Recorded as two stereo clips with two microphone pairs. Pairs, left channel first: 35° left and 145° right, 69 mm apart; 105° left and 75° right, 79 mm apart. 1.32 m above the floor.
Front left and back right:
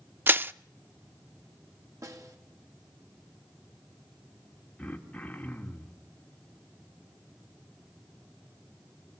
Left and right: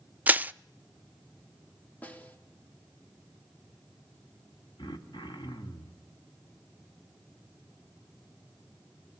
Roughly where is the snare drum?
Behind.